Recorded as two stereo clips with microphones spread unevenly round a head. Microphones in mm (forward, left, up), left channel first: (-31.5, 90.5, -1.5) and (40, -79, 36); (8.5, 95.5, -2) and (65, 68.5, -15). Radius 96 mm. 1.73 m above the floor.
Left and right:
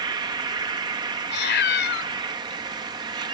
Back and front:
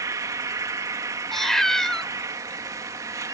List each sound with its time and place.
0.0 s an insect: 25° right
1.3 s a cat meowing: 85° left